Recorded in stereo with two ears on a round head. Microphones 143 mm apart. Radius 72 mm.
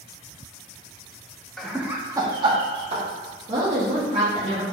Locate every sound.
1.6 s laughter: 5° left (ahead or behind), 0.7 m; by 3.0 s 40° right (ahead or behind), 1.4 m
3.5 s a woman speaking: 40° right (ahead or behind), 1.4 m